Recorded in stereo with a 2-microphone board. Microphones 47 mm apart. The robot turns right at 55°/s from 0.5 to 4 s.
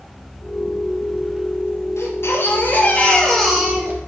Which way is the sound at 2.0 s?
100° left.